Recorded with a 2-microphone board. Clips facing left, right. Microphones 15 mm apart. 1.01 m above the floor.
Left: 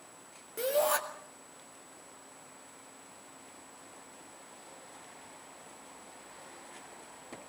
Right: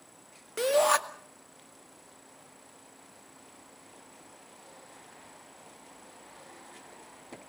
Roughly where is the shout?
Right.